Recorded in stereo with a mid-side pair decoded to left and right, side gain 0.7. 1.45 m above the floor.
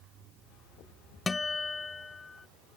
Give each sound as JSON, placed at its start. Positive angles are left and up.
{"t": 1.3, "sound": "a guitar", "azimuth_deg": 20}